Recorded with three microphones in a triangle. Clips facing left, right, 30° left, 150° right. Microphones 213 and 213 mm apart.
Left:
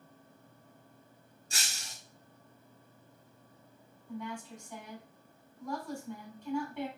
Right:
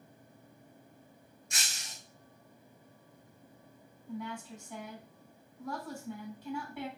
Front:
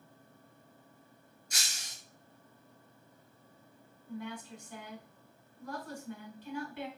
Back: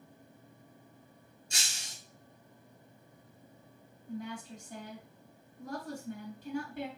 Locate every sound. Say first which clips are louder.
1.5 s breaking glass: left 1 dB, back 2 dB; 150° left, 1.3 m
4.1 s a woman speaking: even, back 1 dB; 175° right, 2.5 m